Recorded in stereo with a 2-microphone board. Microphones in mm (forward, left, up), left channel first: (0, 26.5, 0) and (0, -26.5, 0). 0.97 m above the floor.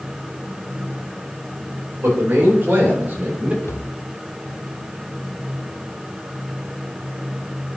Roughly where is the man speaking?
Right.